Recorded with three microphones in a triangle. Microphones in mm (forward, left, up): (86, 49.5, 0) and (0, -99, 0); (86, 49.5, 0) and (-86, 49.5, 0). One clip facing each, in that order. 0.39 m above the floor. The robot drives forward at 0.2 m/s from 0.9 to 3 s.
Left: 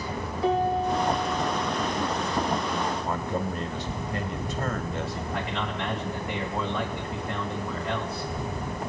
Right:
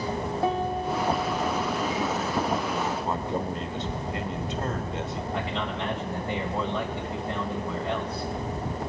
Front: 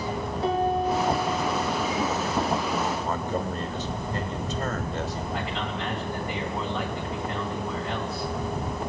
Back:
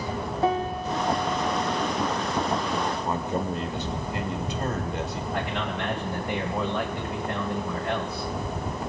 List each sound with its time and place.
0.4 s a piano: 150° right, 3 m
3.0 s a man speaking: 140° right, 1.1 m
5.3 s a man speaking: straight behind, 2.5 m